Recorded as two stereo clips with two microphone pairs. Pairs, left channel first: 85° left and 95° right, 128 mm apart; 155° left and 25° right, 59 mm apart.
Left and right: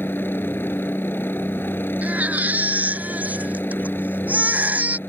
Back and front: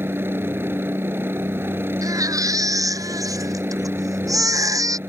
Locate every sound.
0.0 s a helicopter: 15° left
2.0 s a baby crying: 20° right